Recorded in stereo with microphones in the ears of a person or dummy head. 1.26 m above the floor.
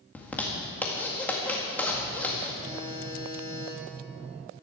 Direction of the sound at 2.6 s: 20° right (ahead or behind).